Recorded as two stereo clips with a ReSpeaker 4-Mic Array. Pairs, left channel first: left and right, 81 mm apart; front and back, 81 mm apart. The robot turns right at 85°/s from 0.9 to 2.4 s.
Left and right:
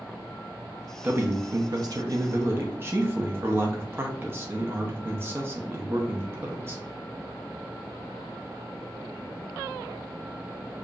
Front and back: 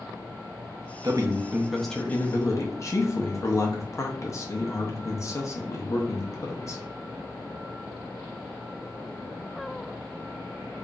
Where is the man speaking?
155° right, 0.7 m; by 6.8 s 40° right, 0.7 m.